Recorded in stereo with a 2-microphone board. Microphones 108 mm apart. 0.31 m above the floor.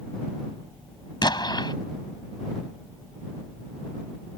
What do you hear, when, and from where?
1.2 s an explosion: 45° left (ahead or behind)